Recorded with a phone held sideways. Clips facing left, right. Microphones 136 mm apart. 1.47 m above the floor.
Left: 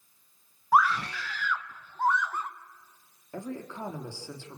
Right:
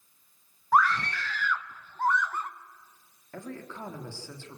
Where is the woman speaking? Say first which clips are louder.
Left 3 dB; 15° left (ahead or behind), 3 m.